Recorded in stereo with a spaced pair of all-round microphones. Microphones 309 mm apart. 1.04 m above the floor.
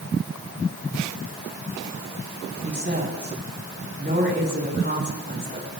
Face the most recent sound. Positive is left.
turn(degrees=-35)  # may be behind; listen again after turning